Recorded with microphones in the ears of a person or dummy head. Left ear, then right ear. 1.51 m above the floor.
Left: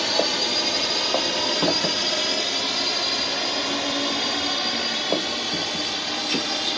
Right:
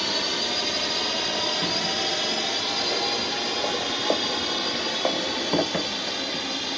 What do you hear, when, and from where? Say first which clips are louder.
0.0 s a drone: left 3 dB; 10° left (ahead or behind)